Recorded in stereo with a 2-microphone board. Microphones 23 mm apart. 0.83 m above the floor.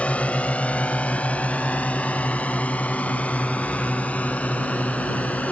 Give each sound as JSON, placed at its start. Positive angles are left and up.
{"t": 0.0, "sound": "a drone", "side_deg": 60}